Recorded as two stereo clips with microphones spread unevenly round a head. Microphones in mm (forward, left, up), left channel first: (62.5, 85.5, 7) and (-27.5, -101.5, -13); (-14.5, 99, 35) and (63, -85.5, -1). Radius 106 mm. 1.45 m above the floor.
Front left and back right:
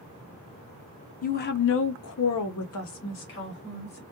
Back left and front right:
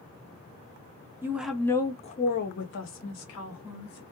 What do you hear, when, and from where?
1.2 s a woman speaking: 15° left, 0.7 m; by 4.0 s 110° left, 1.3 m